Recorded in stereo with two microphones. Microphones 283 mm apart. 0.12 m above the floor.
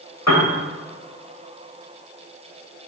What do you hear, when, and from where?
0.3 s a piano: 70° left (ahead or behind), 1.3 m